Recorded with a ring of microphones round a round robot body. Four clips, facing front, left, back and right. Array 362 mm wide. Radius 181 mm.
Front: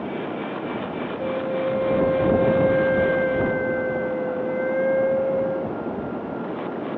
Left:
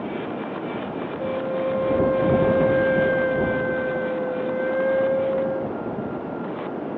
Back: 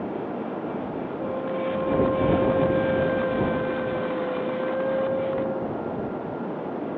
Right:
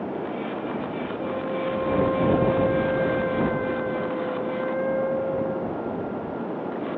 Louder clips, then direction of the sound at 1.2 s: Left 4 dB, front 4 dB; 40° left.